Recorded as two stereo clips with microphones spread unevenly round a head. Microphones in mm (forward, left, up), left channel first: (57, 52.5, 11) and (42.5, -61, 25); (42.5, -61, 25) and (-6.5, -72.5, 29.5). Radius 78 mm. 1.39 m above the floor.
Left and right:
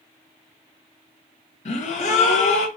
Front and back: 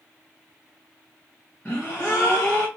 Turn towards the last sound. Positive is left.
turn(degrees=95)